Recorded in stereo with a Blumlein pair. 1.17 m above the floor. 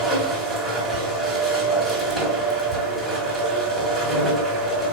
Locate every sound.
0.0 s a machine running: 15° right, 2 m